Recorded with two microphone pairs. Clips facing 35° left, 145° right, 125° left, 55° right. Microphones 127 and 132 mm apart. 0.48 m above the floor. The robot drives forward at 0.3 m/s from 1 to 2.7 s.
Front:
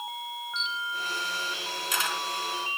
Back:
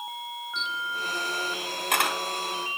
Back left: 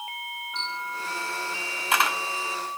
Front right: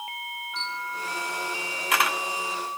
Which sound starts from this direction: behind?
A camera shutter, at 0.6 s.